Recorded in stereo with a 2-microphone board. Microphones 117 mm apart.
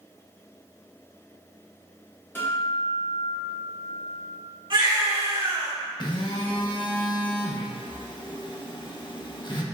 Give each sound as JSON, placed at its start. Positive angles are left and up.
{"t": 2.4, "sound": "a guitar", "side_deg": 20, "distance_m": 1.4}
{"t": 4.7, "sound": "a baby crying", "side_deg": -50, "distance_m": 1.7}
{"t": 6.0, "sound": "a phone buzzing", "side_deg": 45, "distance_m": 0.5}